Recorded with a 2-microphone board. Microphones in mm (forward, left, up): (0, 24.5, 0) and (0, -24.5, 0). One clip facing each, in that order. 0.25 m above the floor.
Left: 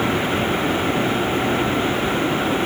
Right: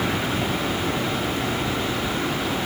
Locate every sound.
Only background noise.